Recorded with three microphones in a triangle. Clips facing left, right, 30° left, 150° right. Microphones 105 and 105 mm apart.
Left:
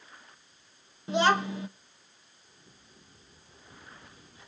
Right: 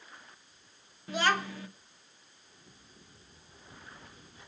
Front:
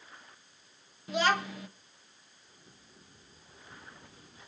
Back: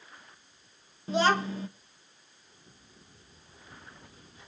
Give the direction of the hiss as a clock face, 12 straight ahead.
I don't hear a hiss.